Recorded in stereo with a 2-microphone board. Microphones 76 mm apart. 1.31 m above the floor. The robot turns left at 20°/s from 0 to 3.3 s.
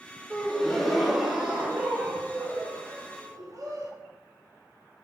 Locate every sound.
0.3 s a gasp: 10° left, 1.2 m; by 3.9 s 50° right, 1.2 m